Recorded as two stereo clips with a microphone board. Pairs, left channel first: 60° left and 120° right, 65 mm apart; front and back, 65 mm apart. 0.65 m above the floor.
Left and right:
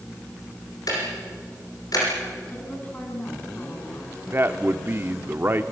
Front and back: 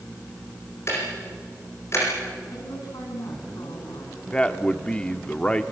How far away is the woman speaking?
About 6.5 m.